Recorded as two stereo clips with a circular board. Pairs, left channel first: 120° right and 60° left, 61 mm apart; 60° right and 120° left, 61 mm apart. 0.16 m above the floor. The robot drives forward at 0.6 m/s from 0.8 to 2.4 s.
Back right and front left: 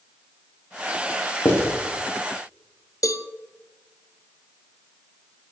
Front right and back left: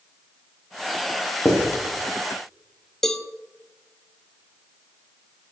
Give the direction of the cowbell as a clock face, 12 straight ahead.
5 o'clock.